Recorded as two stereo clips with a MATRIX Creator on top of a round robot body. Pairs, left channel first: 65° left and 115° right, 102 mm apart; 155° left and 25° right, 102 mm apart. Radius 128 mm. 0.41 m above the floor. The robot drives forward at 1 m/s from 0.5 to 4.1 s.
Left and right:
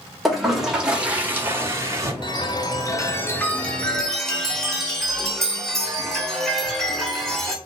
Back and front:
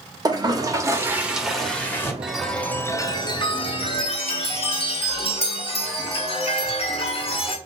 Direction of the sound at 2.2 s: 55° left.